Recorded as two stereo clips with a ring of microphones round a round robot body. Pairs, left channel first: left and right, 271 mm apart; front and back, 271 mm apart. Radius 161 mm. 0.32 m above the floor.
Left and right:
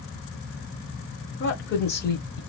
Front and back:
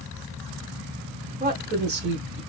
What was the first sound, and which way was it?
A woman speaking, 125° left.